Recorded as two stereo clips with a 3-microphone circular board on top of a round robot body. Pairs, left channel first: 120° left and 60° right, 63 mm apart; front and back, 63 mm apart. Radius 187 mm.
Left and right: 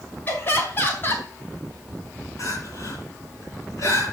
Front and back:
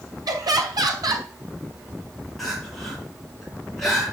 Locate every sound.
0.3 s laughter: 175° left, 4 m
2.4 s crying: 85° left, 5.5 m